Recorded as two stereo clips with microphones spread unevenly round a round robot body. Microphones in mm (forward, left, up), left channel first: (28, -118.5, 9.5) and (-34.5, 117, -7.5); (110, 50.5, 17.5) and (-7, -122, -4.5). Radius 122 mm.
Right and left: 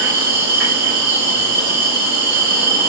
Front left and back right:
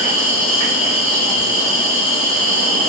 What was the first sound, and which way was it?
An insect, 150° left.